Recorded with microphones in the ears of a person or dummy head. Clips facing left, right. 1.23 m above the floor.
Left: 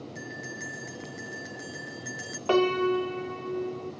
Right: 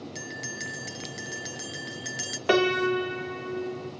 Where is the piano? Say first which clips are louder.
Even; 20° right (ahead or behind), 1.3 m.